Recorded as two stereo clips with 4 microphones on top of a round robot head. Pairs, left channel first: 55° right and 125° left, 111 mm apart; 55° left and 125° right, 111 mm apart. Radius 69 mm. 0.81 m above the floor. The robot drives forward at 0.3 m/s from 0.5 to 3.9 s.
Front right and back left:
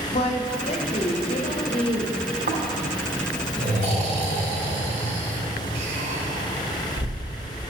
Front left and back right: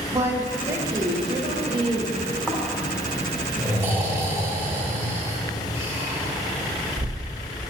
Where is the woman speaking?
60° right, 1.2 m; by 2.2 s 90° right, 1.1 m.